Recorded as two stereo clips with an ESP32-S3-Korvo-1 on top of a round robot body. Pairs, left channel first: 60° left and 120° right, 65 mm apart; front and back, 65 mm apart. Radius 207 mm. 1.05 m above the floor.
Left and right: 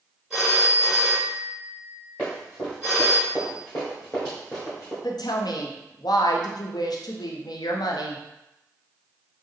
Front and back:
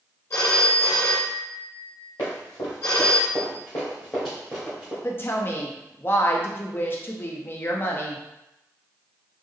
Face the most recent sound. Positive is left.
turn(degrees=55)